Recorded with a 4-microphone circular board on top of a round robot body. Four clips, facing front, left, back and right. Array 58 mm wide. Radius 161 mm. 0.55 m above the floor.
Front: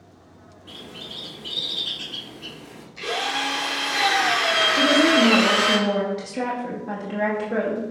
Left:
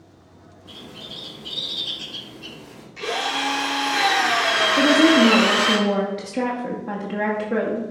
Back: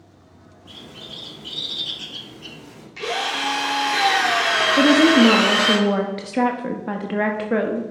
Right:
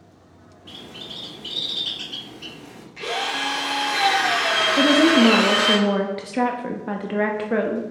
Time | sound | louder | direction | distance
0.7 | a bird | right 1 dB, front 1 dB | 80° right | 2 m
3.0 | a drill | left 1 dB, back 1 dB | 165° right | 3 m
4.8 | a woman speaking | even, back 5 dB | 145° right | 0.9 m